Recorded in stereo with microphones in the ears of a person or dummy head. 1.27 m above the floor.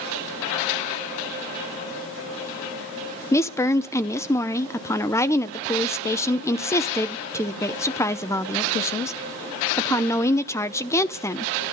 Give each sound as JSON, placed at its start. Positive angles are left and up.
{"t": 3.3, "sound": "a woman speaking", "side_deg": 15, "distance_m": 0.7}